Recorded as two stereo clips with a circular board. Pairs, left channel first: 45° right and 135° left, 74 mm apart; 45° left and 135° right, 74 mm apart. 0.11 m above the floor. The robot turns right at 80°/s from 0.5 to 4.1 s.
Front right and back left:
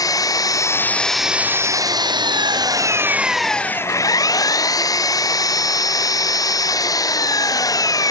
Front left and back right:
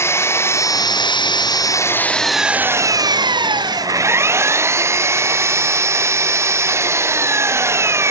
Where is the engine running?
10° right; by 8.1 s 80° right.